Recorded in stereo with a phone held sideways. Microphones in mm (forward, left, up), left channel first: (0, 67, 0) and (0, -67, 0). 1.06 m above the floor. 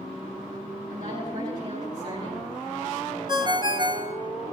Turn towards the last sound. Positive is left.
turn(degrees=-30)  # may be behind; listen again after turning